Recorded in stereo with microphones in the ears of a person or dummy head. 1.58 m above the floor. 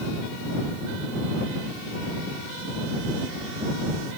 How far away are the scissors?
No scissors in this recording.